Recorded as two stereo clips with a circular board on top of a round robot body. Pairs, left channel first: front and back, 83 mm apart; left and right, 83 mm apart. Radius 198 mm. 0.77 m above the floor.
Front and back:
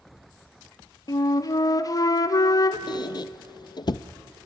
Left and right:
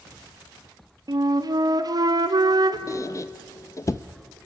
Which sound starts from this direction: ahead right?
A flute, at 1.1 s.